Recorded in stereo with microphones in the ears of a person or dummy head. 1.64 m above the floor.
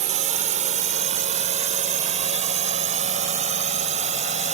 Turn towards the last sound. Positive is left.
turn(degrees=-40)  # may be behind; listen again after turning